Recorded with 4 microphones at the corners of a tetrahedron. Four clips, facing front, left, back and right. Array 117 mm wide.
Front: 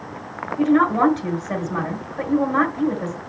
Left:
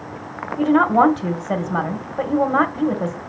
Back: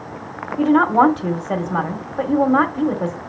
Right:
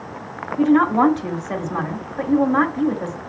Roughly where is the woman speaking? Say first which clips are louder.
Even, back 3 dB; behind left.